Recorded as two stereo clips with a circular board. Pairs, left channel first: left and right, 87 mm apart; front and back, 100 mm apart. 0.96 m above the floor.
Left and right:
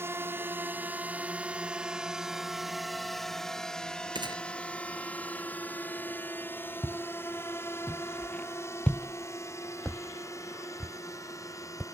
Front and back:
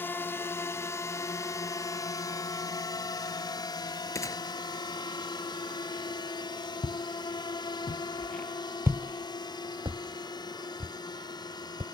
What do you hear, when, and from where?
0.0 s a drone: 55° right; by 11.9 s 40° left
4.2 s a gunshot: 60° right
6.8 s footsteps: 10° left; by 11.8 s straight behind